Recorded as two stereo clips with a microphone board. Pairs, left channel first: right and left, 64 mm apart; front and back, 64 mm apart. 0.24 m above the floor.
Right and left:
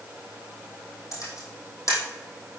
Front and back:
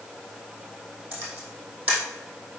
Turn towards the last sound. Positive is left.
turn(degrees=-115)